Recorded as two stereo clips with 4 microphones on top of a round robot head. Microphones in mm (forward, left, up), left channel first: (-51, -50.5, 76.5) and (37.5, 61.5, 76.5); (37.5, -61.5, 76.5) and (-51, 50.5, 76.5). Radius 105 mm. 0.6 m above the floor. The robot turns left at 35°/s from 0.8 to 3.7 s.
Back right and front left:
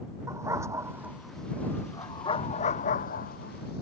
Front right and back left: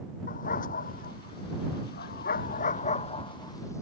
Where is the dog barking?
20° right; by 3.8 s 120° right.